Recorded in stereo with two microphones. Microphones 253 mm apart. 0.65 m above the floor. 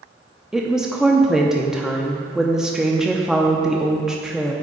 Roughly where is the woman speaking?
Centre.